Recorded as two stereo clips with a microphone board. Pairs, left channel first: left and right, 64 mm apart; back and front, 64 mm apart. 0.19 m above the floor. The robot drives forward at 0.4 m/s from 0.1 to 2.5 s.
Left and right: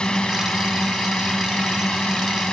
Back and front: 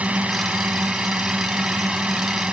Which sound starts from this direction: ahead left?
A drone, at 0.0 s.